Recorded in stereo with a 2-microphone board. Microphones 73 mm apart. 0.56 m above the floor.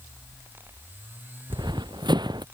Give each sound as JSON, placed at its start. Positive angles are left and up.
{"t": 1.5, "sound": "running footsteps", "side_deg": -80}